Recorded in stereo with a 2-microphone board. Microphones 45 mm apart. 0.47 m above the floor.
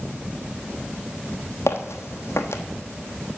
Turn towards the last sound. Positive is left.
turn(degrees=70)  # may be behind; listen again after turning